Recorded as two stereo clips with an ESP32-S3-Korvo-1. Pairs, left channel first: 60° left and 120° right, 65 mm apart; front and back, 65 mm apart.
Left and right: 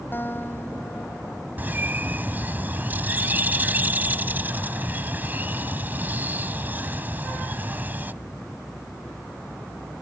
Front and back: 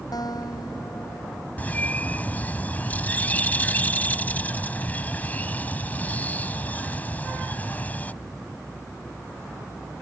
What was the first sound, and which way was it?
A guitar, 5° left.